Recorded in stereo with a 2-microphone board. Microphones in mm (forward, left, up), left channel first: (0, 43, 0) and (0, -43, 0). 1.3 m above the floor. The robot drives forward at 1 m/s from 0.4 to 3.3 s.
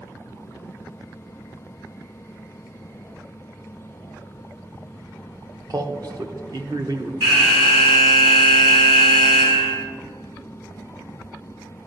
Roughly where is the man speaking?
Right.